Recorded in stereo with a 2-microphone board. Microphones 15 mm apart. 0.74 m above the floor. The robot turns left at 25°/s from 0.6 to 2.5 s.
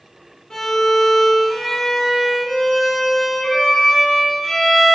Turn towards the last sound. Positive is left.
turn(degrees=75)